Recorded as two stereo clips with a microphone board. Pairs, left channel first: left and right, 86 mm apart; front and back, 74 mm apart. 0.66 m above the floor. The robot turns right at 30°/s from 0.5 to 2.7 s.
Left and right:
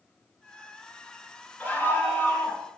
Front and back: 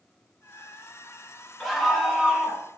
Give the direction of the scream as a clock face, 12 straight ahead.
9 o'clock.